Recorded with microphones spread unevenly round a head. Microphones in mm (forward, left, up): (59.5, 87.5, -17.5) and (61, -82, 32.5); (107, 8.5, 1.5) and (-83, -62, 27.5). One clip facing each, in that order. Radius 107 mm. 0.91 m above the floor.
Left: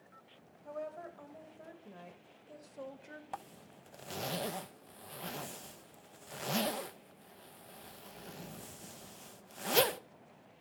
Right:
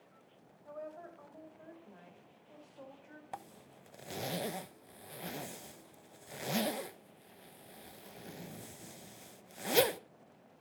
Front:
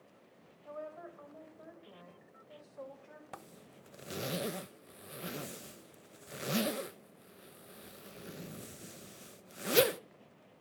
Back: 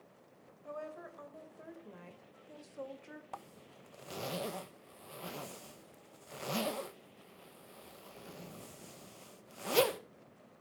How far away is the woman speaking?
About 4.5 m.